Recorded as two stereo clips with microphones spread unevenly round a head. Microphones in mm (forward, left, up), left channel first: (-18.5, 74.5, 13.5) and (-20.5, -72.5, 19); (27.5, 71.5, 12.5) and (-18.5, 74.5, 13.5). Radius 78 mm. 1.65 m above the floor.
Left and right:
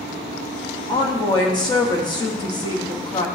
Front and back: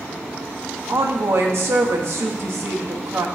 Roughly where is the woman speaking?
Behind left.